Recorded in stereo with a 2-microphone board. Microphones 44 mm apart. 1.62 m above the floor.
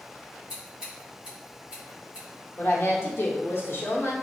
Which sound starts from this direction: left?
A woman speaking, at 2.6 s.